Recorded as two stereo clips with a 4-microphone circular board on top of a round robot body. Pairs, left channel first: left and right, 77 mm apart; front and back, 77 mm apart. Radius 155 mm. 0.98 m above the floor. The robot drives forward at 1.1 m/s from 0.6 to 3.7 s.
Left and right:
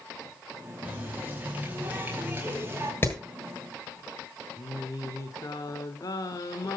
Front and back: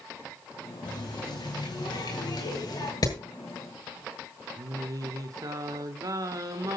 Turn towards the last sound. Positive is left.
turn(degrees=140)